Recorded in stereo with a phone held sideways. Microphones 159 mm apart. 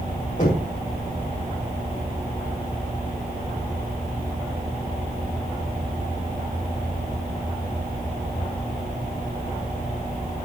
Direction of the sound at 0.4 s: 50° left (ahead or behind).